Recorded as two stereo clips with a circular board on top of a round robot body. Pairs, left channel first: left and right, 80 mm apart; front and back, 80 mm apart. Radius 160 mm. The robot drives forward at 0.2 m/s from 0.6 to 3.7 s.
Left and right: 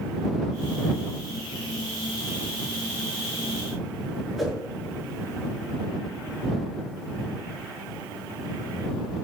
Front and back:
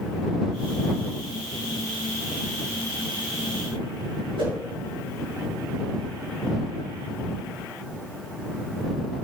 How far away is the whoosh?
About 8 m.